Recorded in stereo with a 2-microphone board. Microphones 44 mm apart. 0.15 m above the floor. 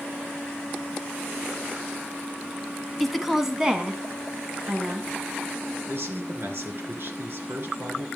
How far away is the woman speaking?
About 1.1 m.